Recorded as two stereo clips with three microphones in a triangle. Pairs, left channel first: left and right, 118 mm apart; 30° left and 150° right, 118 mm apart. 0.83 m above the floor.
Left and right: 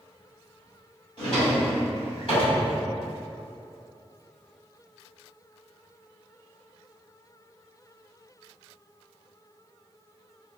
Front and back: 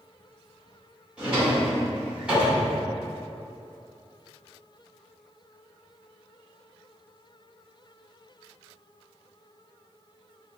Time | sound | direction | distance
1.2 | a drawer | 130° left | 1.6 m